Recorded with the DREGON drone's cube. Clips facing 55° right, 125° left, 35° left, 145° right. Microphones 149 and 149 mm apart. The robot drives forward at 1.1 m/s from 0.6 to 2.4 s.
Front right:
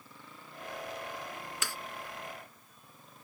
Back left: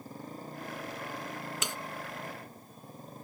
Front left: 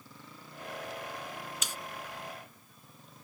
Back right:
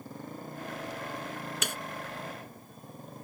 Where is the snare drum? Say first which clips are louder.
Back left 1 dB, back right 6 dB; 165° right.